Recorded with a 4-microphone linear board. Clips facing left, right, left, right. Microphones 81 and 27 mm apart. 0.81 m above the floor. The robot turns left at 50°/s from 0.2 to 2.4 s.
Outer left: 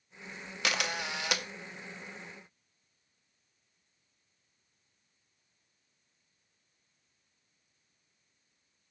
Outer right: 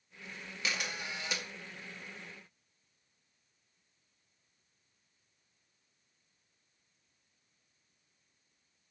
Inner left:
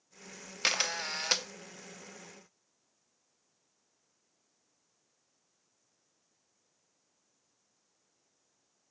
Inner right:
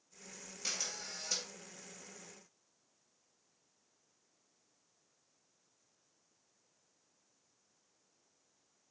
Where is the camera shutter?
105° left, 0.6 m; by 1.4 s 65° left, 0.6 m.